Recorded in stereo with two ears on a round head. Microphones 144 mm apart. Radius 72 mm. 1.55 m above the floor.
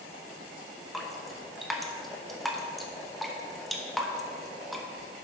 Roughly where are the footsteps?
No footsteps in this recording.